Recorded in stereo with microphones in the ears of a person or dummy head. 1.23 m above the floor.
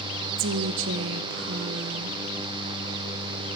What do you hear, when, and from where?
0.4 s a woman speaking: 75° right (ahead or behind), 0.6 m